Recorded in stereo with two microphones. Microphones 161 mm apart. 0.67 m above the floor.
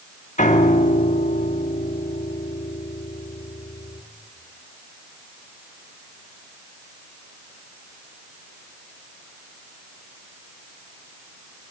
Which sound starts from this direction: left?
A piano, at 0.4 s.